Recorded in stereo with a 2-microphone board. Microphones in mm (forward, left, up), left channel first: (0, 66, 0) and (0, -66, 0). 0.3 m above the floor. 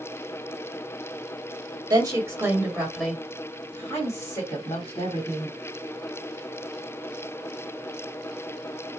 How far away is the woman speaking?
About 1.5 m.